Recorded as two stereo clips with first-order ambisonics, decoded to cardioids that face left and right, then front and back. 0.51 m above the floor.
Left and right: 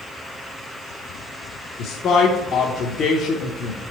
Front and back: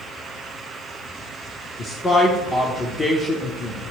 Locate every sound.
1.8 s a man speaking: 60° left, 1.0 m